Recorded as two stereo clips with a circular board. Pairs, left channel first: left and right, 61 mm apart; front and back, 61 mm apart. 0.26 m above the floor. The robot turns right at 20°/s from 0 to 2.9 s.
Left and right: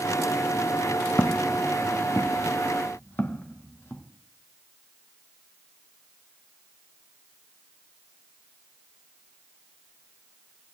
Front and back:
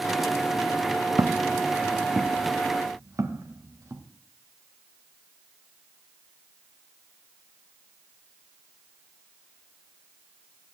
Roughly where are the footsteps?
Behind left.